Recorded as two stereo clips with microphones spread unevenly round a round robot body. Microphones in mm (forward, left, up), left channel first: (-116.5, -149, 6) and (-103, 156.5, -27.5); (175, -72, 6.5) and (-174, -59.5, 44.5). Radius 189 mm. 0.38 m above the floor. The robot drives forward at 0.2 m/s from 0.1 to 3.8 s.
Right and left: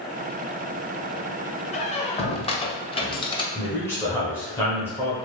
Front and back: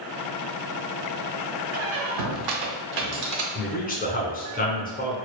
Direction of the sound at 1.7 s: 165° right.